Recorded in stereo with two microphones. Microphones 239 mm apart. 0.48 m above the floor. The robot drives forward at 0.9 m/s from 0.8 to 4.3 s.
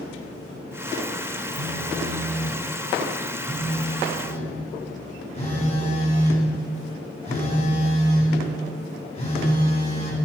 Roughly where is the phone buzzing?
Left.